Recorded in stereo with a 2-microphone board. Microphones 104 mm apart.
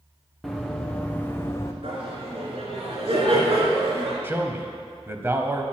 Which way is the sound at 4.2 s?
20° right (ahead or behind).